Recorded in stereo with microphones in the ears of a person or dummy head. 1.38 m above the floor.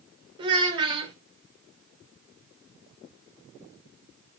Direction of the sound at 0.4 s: 25° right (ahead or behind).